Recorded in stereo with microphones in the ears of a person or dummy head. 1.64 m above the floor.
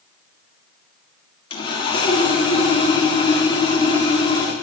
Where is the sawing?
25° left (ahead or behind), 1.8 m.